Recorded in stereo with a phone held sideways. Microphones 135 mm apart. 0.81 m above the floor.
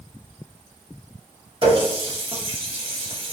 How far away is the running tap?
About 0.8 m.